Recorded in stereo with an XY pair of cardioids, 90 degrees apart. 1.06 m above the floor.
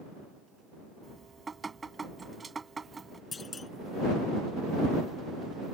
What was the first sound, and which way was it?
Dripping, 30° right.